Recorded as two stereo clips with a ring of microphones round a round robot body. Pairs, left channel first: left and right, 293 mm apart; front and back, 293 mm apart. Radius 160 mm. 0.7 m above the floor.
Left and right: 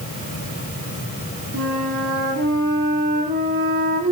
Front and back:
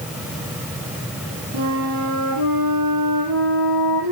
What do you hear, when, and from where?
1.5 s a flute: 155° right, 8 m